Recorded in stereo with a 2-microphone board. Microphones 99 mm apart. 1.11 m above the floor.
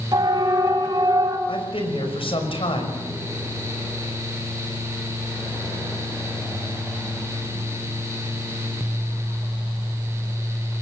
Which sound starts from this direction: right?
A siren, at 0.1 s.